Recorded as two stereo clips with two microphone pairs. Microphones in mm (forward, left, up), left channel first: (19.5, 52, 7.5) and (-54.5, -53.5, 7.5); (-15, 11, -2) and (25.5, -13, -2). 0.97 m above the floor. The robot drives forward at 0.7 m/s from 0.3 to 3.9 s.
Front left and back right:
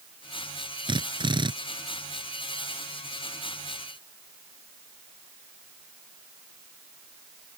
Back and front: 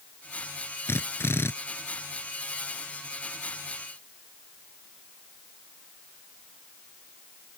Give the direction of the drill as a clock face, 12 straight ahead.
6 o'clock.